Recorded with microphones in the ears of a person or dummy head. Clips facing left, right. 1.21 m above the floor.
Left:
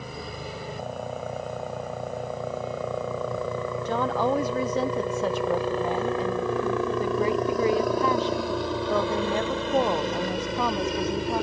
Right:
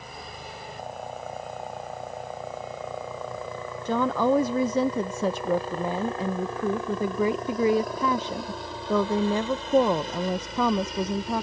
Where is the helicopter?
65° left (ahead or behind); by 11.4 s 55° left (ahead or behind).